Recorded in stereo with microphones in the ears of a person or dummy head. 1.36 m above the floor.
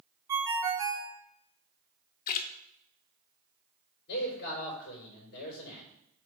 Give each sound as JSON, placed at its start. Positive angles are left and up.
{"t": 0.3, "sound": "a ringtone", "side_deg": -15, "distance_m": 0.5}
{"t": 2.3, "sound": "a splash", "side_deg": 45, "distance_m": 0.7}
{"t": 4.1, "sound": "a man speaking", "side_deg": 55, "distance_m": 4.0}